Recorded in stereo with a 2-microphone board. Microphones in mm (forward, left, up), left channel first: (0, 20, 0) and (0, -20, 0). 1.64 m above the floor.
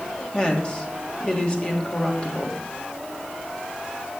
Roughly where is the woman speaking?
Left.